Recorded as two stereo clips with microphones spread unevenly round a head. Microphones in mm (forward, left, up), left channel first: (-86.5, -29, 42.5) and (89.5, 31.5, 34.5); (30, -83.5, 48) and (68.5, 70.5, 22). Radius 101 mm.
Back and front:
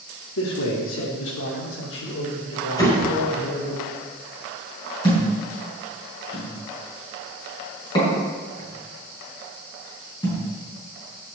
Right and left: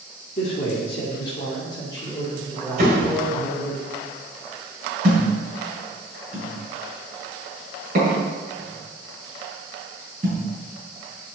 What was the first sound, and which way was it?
A man speaking, 165° right.